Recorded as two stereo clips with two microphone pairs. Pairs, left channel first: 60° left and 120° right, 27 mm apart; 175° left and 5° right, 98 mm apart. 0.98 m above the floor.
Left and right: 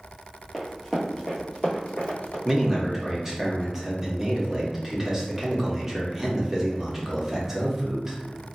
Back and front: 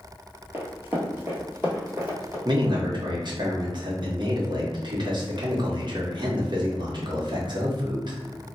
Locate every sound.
0.5 s running footsteps: 20° right, 1.0 m; by 2.4 s 60° left, 1.4 m
2.5 s a man speaking: 40° right, 0.9 m